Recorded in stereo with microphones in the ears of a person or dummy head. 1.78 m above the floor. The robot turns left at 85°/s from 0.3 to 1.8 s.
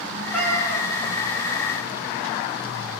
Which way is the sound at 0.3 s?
175° left.